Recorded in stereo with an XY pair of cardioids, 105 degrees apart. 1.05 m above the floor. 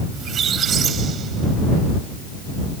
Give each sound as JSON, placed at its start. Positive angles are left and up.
{"t": 0.1, "sound": "a squeak", "azimuth_deg": -60}